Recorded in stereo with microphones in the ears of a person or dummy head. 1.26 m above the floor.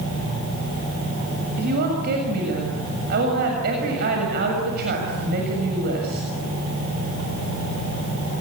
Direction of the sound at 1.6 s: 55° right (ahead or behind).